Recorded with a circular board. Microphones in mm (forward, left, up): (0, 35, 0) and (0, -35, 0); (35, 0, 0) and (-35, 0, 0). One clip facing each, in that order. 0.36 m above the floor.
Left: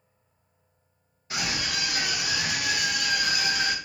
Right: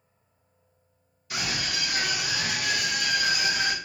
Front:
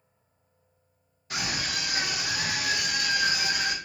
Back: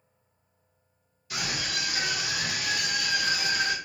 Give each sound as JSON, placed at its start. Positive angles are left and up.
{"t": 1.3, "sound": "a scream", "azimuth_deg": 40, "distance_m": 1.6}